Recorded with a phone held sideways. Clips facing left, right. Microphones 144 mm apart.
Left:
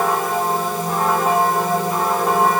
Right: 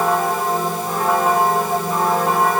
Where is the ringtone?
I don't hear a ringtone.